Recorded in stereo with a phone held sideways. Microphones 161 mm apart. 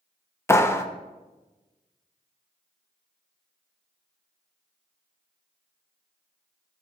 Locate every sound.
0.5 s a clap: 15° left (ahead or behind), 0.6 m